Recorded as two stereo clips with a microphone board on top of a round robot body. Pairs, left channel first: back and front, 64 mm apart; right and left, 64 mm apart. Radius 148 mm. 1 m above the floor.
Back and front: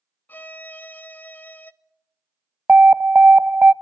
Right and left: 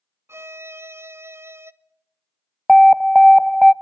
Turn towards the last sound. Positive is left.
turn(degrees=-5)